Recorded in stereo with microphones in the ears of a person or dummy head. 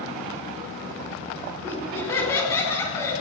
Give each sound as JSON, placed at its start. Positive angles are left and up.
{"t": 1.6, "sound": "laughter", "side_deg": 20, "distance_m": 9.0}